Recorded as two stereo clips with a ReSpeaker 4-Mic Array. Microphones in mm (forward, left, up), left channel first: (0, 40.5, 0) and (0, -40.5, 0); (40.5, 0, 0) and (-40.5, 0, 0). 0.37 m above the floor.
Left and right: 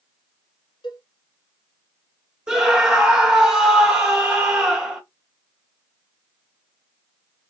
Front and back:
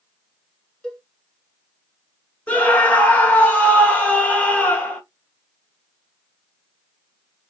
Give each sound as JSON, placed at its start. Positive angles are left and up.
{"t": 0.8, "sound": "a cowbell", "azimuth_deg": 80, "distance_m": 1.1}
{"t": 2.5, "sound": "a scream", "azimuth_deg": -25, "distance_m": 1.0}